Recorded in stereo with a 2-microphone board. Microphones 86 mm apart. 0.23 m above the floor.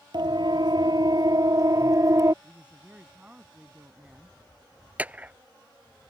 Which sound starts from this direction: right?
A siren, at 0.1 s.